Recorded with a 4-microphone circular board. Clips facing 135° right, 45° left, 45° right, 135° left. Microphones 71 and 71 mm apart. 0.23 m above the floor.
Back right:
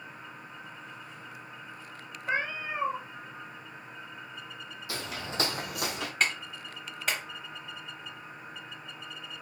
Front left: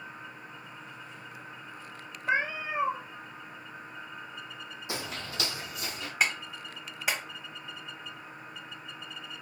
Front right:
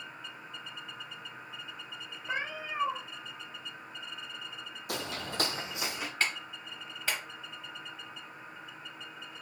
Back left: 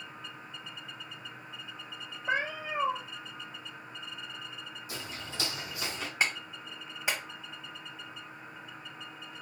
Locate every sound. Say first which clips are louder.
2.3 s a cat meowing: front left 2 dB, back left 4 dB; 120° left, 0.9 m
4.9 s footsteps: back right 1 dB, front right 6 dB; 25° right, 0.6 m; by 6.1 s 125° right, 1.0 m
6.2 s a clap: front left 1 dB, back left 3 dB; 105° left, 0.9 m